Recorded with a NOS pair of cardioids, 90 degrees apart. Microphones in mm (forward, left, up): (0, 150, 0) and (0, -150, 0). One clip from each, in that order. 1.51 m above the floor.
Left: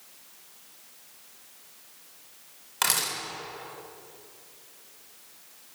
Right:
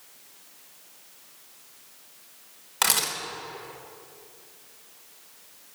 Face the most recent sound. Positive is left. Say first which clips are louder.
# right 2 dB
turn(degrees=-15)